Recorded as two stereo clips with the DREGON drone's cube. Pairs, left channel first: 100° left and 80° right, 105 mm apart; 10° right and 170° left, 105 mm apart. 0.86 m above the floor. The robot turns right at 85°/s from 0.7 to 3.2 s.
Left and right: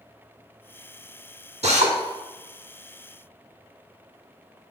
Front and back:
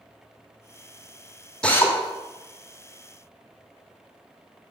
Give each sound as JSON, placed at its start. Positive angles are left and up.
{"t": 1.6, "sound": "a drill", "azimuth_deg": -95, "distance_m": 1.2}